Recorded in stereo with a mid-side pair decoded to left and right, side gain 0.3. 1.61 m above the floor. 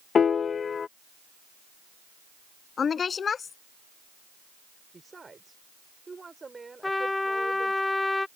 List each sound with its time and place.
0.1 s a piano: 65° left
2.8 s a woman speaking: 65° left
4.9 s a woman speaking: 40° right
6.8 s a trumpet: 25° left